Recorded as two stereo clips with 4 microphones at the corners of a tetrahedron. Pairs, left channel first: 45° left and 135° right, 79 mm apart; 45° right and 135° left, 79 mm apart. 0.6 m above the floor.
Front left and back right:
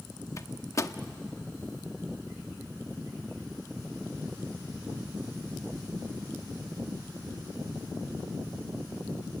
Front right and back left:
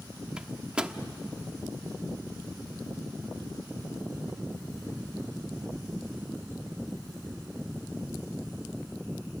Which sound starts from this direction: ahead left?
A microwave, at 0.4 s.